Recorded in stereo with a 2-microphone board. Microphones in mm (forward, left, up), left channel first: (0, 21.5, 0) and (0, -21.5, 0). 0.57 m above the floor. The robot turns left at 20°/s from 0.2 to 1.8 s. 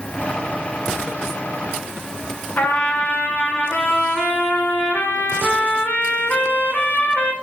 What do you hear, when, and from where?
2.6 s a trumpet: 45° left (ahead or behind), 0.6 m